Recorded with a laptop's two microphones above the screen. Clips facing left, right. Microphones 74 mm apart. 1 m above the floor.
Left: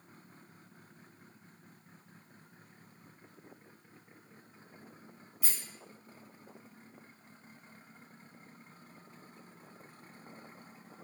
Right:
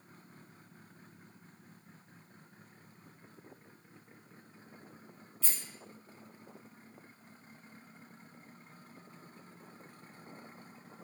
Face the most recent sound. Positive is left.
turn(degrees=15)  # may be behind; listen again after turning